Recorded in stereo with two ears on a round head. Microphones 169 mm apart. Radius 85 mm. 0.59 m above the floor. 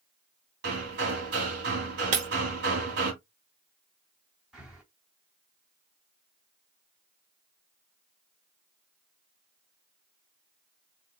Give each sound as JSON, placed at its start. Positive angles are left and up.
{"t": 0.6, "sound": "hammering", "side_deg": -60, "distance_m": 2.0}
{"t": 2.1, "sound": "breaking glass", "side_deg": -40, "distance_m": 1.2}
{"t": 4.5, "sound": "breathing", "side_deg": -5, "distance_m": 2.5}